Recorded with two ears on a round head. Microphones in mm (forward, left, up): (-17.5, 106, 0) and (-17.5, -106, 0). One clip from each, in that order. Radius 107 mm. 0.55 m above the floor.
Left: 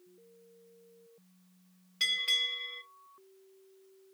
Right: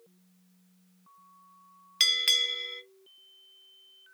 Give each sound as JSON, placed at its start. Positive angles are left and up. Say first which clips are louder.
{"t": 2.0, "sound": "a bell", "louder": "right 5 dB", "side_deg": -75, "distance_m": 0.5}